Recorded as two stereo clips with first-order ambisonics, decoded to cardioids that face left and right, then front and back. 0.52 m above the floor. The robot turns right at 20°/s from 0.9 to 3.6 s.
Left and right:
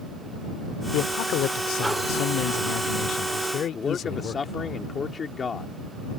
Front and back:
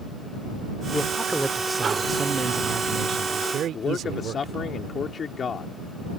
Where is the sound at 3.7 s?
40° left.